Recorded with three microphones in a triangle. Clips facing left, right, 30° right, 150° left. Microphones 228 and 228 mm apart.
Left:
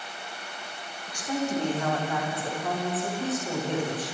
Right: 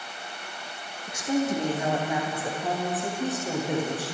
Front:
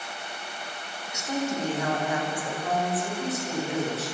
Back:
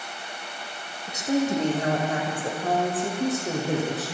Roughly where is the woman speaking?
Behind right.